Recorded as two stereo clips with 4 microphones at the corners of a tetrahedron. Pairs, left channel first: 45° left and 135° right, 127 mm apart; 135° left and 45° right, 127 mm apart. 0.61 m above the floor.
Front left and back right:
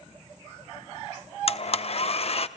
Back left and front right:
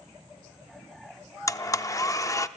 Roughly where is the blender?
Left.